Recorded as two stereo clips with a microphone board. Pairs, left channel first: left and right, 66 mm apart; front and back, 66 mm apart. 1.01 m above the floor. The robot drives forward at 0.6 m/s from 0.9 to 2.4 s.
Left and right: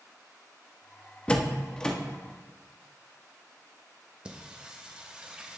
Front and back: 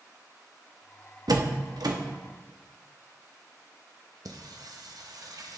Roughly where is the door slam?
Behind.